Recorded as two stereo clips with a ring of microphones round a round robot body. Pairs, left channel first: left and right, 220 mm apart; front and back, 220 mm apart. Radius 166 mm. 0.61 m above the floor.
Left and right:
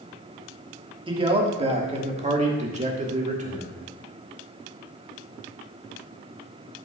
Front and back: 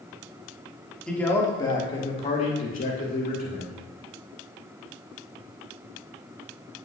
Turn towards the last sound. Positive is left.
turn(degrees=-35)